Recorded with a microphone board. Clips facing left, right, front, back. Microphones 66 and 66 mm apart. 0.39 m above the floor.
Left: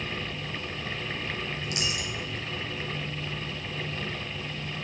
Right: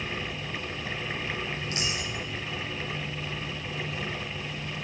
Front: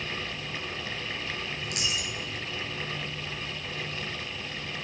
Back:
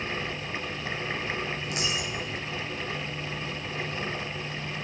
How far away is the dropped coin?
About 2.5 m.